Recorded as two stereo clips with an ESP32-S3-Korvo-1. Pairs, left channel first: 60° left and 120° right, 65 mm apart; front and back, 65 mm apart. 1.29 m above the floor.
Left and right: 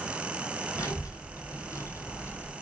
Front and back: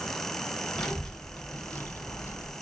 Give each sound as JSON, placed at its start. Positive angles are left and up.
{"t": 0.8, "sound": "a child speaking", "azimuth_deg": 80, "distance_m": 1.1}